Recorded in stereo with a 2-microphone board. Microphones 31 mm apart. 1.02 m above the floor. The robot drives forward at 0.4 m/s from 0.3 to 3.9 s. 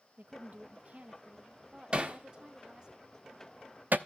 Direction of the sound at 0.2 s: 60° right (ahead or behind).